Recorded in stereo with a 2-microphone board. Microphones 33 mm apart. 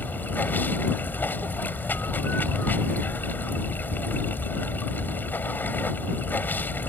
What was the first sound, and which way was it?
Running water, 70° left (ahead or behind).